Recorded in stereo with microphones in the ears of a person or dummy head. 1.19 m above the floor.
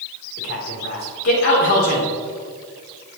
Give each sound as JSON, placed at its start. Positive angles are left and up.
{"t": 0.4, "sound": "a man speaking", "side_deg": 85, "distance_m": 3.5}